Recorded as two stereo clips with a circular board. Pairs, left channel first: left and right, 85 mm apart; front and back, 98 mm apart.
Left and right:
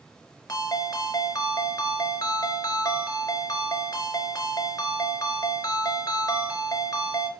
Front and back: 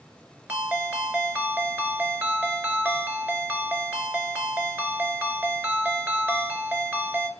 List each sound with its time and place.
0.5 s a ringtone: 110° left, 0.8 m